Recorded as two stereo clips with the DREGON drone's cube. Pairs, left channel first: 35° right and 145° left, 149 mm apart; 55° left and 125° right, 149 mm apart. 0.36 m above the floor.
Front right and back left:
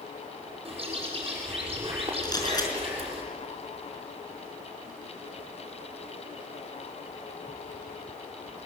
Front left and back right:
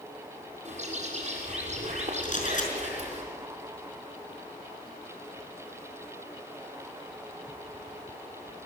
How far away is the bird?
About 6.5 m.